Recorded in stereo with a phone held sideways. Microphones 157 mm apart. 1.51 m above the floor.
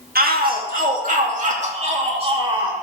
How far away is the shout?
About 2.5 m.